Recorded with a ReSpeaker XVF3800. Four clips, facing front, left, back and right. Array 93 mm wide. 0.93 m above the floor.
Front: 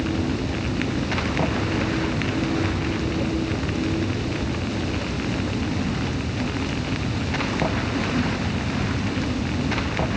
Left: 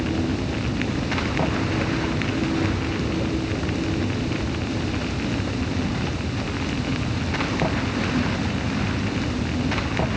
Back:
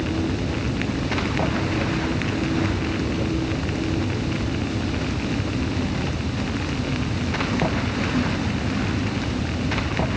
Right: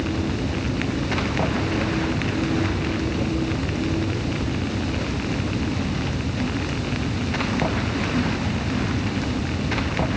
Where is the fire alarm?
I don't hear a fire alarm.